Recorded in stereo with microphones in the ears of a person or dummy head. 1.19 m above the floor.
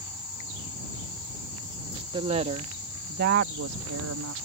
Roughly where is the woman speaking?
Right.